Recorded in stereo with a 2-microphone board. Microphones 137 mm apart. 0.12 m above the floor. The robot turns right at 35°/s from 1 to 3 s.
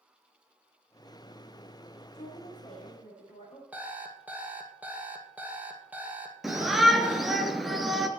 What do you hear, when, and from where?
2.1 s a woman speaking: 110° left, 7.5 m; by 3.6 s 140° left, 7.5 m
3.7 s an alarm clock: 10° right (ahead or behind), 2 m
6.4 s a shout: centre (ahead or behind), 2 m